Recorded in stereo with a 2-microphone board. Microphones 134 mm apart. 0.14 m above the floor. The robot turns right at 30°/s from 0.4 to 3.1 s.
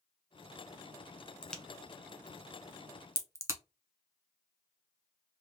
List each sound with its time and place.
1.4 s a crack: 5° left (ahead or behind), 0.7 m; by 3.6 s 20° right (ahead or behind), 0.7 m